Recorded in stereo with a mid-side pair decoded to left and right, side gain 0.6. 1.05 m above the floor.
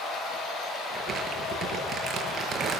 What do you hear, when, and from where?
0.9 s crumpling: 35° right, 8.5 m